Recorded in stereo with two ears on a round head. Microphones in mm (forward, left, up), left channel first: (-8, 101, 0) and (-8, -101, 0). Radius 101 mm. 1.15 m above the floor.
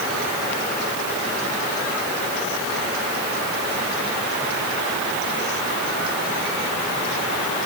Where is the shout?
I don't hear a shout.